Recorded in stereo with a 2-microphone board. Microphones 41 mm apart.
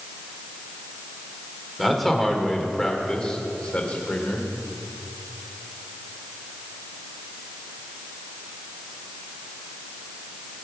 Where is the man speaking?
Centre (ahead or behind), 2.5 m; by 4.5 s 40° left (ahead or behind), 3 m.